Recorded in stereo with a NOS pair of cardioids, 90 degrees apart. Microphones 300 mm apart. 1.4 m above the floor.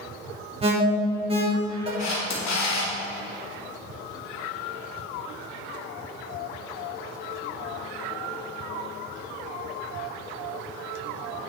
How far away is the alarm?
About 3.5 m.